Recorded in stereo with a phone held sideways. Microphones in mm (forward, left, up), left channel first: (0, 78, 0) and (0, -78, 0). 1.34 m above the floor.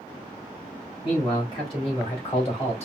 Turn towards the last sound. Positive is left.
turn(degrees=45)  # may be behind; listen again after turning